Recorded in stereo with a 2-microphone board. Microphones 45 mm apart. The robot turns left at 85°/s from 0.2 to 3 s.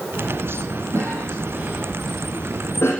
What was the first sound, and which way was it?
A cough, 75° right (ahead or behind).